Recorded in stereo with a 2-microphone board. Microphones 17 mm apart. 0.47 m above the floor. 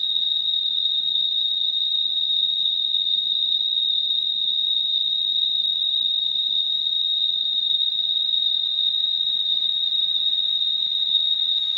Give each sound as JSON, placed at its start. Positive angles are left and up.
{"t": 0.0, "sound": "an insect", "side_deg": 5, "distance_m": 1.4}